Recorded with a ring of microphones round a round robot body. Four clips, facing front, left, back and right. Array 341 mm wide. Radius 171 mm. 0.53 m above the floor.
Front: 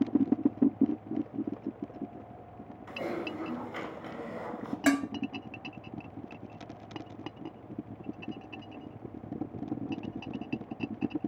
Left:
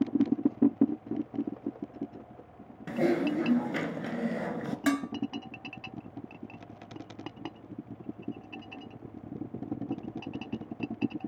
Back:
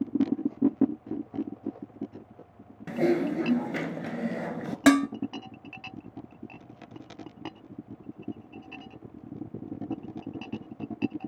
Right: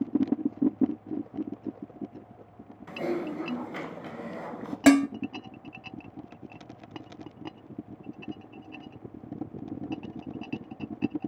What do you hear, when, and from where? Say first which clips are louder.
2.9 s typing on a keyboard: left 4 dB, back 11 dB; 140° left, 1.3 m
4.9 s dishes clattering: right 11 dB, back 7 dB; 125° right, 0.5 m